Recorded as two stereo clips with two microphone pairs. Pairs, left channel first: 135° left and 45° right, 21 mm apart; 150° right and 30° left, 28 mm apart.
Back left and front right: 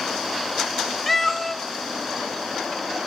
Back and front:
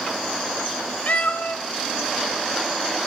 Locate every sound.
1.1 s a cat meowing: 145° right, 0.6 m